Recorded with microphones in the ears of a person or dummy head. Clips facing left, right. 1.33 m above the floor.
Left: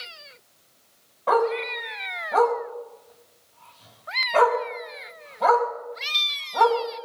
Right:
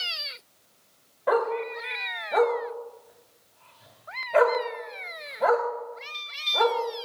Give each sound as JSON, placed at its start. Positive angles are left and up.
{"t": 1.3, "sound": "a dog barking", "side_deg": -25, "distance_m": 3.0}